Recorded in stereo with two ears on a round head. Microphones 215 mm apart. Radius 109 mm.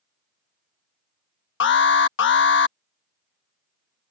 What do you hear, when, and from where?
1.6 s an alarm: 45° left (ahead or behind)